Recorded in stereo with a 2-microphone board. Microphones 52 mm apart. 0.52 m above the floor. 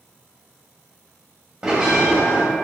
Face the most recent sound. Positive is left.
turn(degrees=-20)  # may be behind; listen again after turning